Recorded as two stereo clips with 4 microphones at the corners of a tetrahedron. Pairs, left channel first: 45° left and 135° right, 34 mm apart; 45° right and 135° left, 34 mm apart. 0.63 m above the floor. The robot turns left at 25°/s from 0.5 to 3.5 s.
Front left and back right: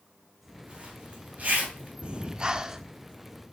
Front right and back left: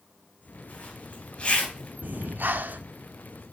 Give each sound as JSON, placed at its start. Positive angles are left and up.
{"t": 0.7, "sound": "a zipper", "azimuth_deg": -80, "distance_m": 3.0}
{"t": 2.0, "sound": "breathing", "azimuth_deg": 170, "distance_m": 0.5}